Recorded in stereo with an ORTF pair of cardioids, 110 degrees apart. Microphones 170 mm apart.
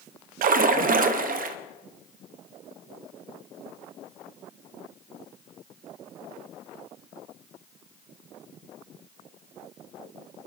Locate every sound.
0.4 s a splash: 60° right, 0.8 m